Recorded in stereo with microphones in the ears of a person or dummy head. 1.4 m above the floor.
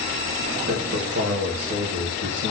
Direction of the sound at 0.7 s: 60° right (ahead or behind).